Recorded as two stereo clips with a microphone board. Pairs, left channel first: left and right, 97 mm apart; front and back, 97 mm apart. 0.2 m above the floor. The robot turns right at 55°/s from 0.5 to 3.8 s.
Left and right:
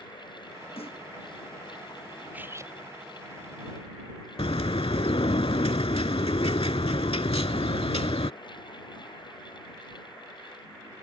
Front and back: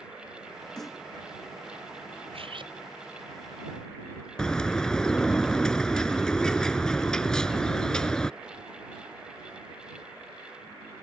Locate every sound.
0.8 s a snare drum: 85° left; by 1.0 s 100° left
2.3 s cutlery clinking: 165° right; by 2.7 s 145° right
4.4 s a bird: 80° left